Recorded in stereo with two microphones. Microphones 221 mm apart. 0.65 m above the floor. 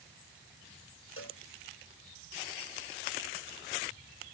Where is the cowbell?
80° left.